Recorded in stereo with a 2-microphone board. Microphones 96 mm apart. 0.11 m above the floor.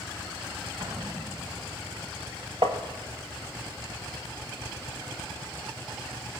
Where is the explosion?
45° right (ahead or behind), 3 m.